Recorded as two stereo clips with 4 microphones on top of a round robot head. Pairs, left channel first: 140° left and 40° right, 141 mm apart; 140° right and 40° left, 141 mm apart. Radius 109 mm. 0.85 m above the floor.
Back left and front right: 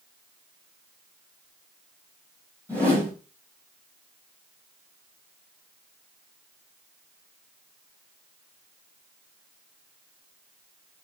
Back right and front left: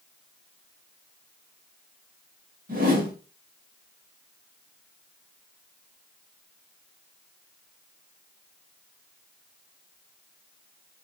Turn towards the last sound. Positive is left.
turn(degrees=30)